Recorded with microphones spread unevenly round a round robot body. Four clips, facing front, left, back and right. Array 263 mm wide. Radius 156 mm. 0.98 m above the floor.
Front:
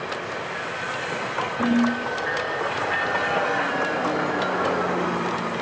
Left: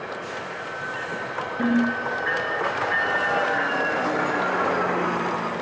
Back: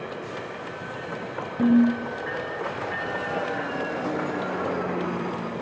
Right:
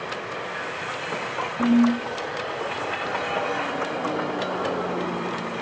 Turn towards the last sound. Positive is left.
turn(degrees=-175)